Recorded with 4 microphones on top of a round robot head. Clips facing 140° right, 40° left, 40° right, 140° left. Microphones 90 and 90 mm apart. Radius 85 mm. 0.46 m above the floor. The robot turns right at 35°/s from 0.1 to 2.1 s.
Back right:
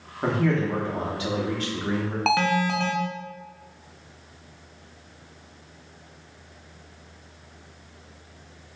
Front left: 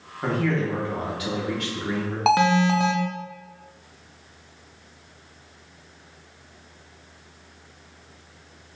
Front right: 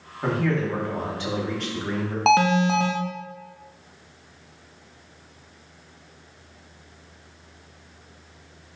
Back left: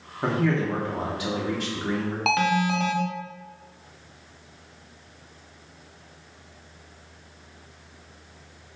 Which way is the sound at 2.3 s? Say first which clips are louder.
Front left 5 dB, front right 5 dB; 15° right.